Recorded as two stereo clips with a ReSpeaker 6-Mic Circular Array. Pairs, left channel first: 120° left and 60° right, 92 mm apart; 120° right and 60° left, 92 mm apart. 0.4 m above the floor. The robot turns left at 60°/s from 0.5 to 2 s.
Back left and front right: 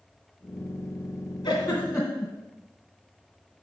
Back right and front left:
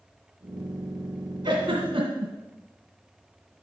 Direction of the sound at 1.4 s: 95° left.